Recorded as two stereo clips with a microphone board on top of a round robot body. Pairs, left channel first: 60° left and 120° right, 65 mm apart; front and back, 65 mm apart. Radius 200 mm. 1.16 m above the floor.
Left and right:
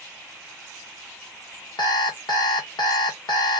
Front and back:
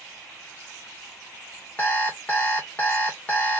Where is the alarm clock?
70° left, 0.7 m.